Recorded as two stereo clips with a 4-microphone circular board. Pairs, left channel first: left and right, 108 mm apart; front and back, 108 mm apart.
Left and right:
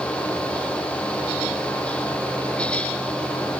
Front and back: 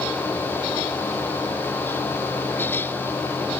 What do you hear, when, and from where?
Only background noise.